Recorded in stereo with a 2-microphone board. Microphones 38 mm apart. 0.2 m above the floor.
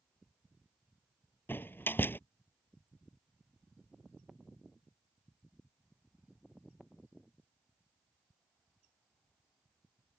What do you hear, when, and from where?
1.5 s a door slam: 70° left (ahead or behind)